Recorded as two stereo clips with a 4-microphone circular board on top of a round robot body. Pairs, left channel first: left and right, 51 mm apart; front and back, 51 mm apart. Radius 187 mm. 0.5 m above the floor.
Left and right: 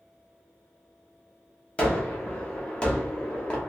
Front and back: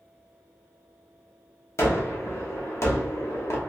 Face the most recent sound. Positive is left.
turn(degrees=20)